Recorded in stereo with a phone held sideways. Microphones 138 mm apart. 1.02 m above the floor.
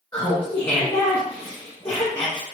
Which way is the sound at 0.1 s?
25° left (ahead or behind).